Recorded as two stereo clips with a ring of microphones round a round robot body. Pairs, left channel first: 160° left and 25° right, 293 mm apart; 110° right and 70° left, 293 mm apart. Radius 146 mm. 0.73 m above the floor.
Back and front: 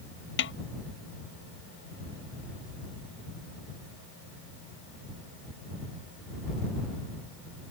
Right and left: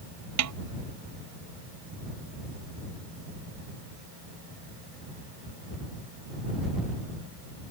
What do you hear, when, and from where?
0.4 s a snare drum: 105° left